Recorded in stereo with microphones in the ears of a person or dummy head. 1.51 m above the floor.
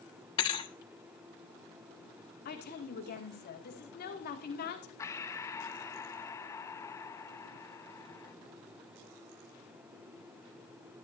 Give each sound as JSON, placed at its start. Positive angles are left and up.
{"t": 0.4, "sound": "a thud", "side_deg": 25, "distance_m": 1.2}
{"t": 2.5, "sound": "a woman speaking", "side_deg": 50, "distance_m": 2.0}
{"t": 5.0, "sound": "breathing", "side_deg": 15, "distance_m": 0.7}